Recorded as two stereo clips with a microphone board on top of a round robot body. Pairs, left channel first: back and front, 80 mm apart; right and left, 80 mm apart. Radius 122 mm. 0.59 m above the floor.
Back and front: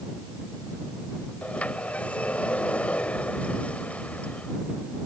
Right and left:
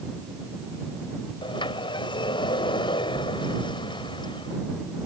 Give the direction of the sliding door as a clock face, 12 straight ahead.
4 o'clock.